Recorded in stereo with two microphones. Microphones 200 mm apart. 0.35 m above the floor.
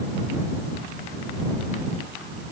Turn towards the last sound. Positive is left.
No sound to turn to.